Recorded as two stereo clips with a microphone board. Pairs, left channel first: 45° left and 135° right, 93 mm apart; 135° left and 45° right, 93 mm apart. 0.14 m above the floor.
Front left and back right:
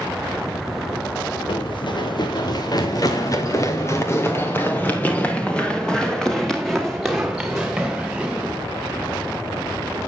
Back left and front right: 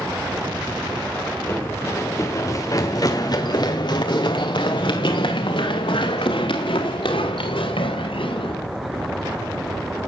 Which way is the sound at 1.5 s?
70° left.